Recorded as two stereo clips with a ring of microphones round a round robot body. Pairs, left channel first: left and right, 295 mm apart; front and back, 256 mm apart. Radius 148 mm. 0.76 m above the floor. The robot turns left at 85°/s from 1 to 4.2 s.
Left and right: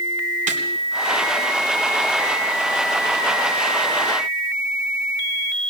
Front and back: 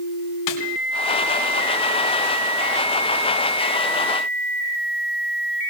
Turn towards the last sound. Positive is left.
turn(degrees=65)